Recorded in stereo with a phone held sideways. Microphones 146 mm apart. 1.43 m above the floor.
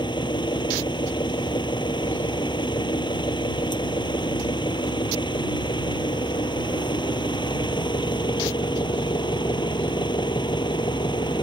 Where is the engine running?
30° left (ahead or behind).